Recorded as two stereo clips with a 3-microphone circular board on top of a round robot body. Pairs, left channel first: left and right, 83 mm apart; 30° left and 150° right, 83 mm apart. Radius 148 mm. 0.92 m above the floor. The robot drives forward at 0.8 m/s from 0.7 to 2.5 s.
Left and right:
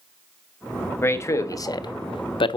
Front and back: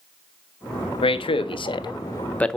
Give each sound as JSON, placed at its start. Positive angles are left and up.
{"t": 1.0, "sound": "a man speaking", "azimuth_deg": 30, "distance_m": 1.2}